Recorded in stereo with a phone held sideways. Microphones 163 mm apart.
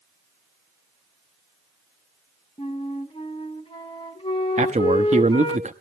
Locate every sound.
2.6 s a flute: 30° left (ahead or behind), 1.0 m
4.6 s a man speaking: 45° right (ahead or behind), 0.9 m